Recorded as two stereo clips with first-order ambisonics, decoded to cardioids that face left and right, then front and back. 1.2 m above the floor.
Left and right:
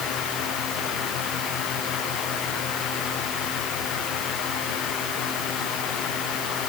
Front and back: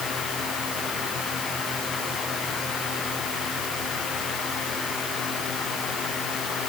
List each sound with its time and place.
Only background noise.